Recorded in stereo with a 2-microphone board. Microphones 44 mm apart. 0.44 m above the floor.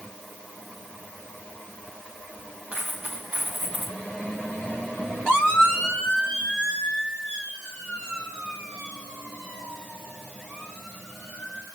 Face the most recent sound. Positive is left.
turn(degrees=-25)  # may be behind; listen again after turning